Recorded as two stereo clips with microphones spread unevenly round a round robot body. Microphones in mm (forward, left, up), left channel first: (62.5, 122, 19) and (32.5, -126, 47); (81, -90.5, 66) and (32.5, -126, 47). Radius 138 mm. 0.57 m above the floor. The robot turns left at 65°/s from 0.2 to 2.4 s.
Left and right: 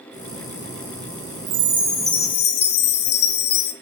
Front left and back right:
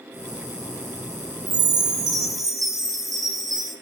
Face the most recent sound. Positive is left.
turn(degrees=140)